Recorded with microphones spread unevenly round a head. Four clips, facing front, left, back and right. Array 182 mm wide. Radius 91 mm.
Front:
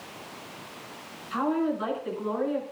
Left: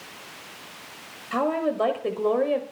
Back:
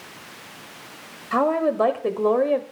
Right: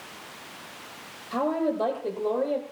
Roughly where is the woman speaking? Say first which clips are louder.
Left 1 dB, back 6 dB; behind.